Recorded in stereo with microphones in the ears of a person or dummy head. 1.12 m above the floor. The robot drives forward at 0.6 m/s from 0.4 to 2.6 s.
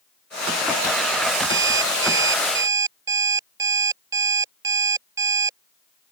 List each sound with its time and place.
1.5 s an alarm clock: 20° right (ahead or behind)